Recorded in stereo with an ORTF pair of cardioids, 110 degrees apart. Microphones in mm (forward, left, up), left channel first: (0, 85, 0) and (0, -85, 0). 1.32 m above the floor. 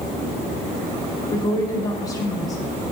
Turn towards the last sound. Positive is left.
turn(degrees=20)